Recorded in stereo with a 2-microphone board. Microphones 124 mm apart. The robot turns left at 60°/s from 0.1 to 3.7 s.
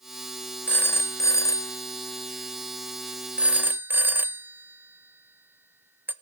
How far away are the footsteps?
No footsteps in this recording.